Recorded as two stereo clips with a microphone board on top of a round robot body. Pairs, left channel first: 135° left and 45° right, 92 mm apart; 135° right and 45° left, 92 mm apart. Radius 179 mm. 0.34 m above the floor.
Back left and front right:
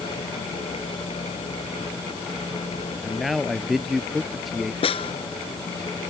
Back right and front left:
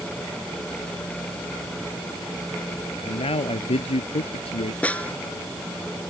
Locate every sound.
3.0 s a man speaking: 135° right
4.8 s a snare drum: 150° left